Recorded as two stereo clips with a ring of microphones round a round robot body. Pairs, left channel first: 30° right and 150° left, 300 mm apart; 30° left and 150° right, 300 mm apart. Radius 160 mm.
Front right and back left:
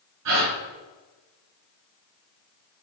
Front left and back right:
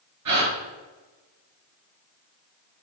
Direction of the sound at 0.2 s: Straight behind.